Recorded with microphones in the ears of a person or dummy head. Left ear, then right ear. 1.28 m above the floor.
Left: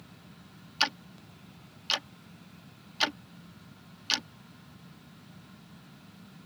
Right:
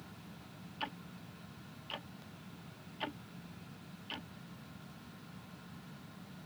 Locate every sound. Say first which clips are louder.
0.8 s ticking: left 14 dB; 60° left (ahead or behind)